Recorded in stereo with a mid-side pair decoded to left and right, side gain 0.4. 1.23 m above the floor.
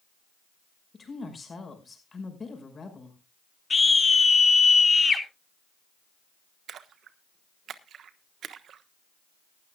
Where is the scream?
30° left, 4 m.